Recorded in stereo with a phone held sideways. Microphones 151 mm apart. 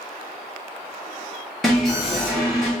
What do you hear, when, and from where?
1.6 s an alarm: centre (ahead or behind), 1.2 m